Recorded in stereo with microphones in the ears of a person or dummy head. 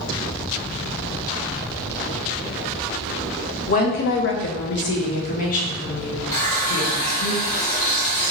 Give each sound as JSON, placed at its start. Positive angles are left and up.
{"t": 3.7, "sound": "a woman speaking", "side_deg": 35, "distance_m": 0.7}
{"t": 6.3, "sound": "a running tap", "side_deg": 45, "distance_m": 2.0}